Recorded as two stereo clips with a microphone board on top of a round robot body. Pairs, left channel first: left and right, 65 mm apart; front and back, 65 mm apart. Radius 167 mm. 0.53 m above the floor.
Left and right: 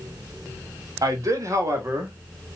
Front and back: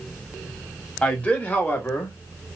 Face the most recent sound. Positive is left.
turn(degrees=-50)